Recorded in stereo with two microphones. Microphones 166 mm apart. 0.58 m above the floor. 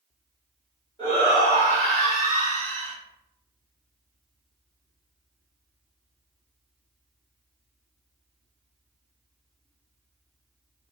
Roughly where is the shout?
Left.